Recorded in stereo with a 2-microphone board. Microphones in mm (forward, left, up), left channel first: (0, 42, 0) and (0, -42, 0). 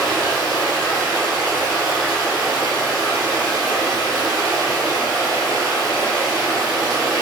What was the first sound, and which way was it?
Running water, centre (ahead or behind).